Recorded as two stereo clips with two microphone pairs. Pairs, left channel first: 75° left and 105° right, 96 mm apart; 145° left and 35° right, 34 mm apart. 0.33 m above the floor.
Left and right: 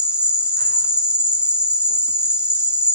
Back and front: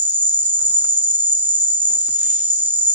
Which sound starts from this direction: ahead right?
An insect, at 0.0 s.